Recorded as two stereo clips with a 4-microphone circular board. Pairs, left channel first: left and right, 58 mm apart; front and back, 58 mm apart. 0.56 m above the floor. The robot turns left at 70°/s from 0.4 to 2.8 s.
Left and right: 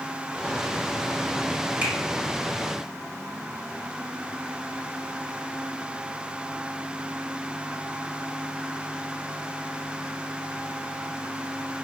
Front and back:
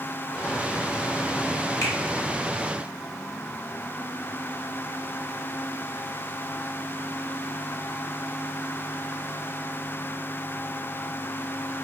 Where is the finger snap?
40° right, 1.6 m; by 1.9 s 50° right, 1.6 m.